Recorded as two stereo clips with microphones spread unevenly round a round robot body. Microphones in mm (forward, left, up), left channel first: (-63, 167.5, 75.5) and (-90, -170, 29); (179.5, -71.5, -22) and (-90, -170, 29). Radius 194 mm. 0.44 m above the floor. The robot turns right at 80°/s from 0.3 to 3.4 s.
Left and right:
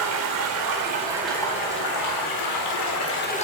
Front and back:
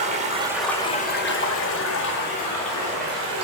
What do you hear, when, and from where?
0.0 s running water: 90° right, 1.5 m; by 3.5 s 160° left, 1.5 m